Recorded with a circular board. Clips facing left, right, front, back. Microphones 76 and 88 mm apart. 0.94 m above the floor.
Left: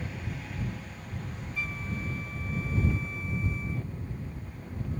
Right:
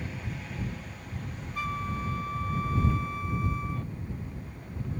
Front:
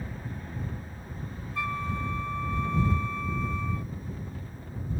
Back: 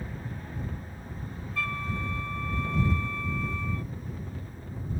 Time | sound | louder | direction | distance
1.6 | a flute | right 5 dB, front 2 dB | 70° right | ?